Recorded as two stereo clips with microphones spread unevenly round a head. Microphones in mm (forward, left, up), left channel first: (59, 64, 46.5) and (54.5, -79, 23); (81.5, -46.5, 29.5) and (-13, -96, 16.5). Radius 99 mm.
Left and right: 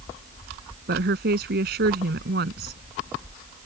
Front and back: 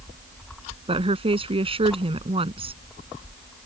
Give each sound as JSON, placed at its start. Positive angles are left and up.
{"t": 0.9, "sound": "a woman speaking", "azimuth_deg": -120}